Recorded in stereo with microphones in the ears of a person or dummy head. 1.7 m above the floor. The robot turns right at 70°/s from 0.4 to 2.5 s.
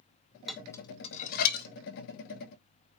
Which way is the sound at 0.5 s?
Centre (ahead or behind).